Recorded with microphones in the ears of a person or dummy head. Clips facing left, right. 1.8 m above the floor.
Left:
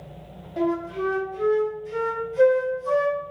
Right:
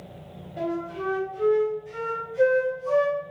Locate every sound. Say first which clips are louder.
0.6 s a flute: left 5 dB; 45° left (ahead or behind), 0.6 m